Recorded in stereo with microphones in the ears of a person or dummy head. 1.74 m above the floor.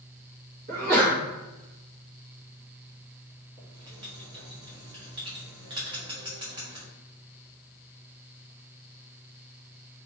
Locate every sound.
0.7 s a sneeze: 45° right (ahead or behind), 1.4 m
3.6 s writing: 20° right (ahead or behind), 1.0 m